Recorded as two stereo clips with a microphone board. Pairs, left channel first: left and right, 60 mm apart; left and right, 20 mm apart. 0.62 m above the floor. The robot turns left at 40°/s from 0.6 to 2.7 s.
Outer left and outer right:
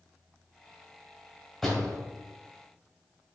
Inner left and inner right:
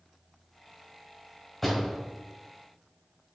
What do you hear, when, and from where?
1.6 s a door slam: centre (ahead or behind), 2 m; by 2.0 s 15° left (ahead or behind), 2 m